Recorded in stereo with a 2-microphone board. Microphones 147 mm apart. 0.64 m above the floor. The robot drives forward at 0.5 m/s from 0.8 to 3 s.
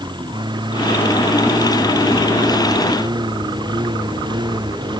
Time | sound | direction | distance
0.0 | a lawn mower | 30° right (ahead or behind) | ?